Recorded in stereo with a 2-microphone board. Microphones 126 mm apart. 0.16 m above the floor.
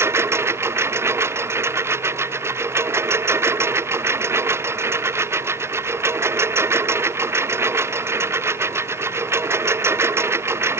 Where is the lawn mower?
20° right (ahead or behind).